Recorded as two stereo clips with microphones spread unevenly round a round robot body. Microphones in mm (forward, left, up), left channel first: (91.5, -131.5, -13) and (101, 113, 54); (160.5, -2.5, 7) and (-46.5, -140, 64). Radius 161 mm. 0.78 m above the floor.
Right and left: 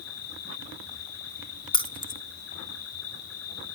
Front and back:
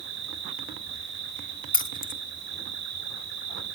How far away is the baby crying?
I don't hear a baby crying.